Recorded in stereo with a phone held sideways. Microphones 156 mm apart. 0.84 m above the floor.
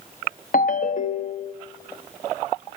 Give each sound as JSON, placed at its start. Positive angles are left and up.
{"t": 0.5, "sound": "a ringtone", "side_deg": 55, "distance_m": 0.8}